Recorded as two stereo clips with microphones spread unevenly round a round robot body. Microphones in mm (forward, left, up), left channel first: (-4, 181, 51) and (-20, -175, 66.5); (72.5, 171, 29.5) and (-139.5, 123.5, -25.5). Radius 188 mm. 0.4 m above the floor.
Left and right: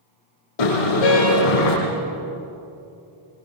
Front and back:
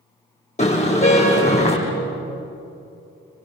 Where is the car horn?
70° left, 7.5 m.